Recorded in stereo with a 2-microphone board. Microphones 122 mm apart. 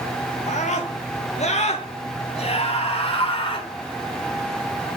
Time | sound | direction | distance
0.5 | a scream | 75° left (ahead or behind) | 4 m